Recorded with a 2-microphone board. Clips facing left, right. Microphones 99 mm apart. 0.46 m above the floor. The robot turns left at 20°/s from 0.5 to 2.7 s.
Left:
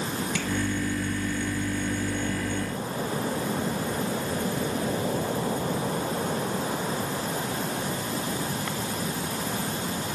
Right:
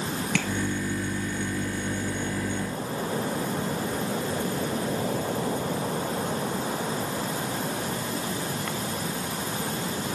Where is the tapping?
80° right, 1.7 m.